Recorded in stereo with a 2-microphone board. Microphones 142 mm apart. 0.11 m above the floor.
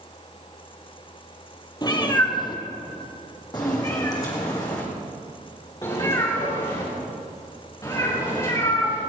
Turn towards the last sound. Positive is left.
turn(degrees=25)  # may be behind; listen again after turning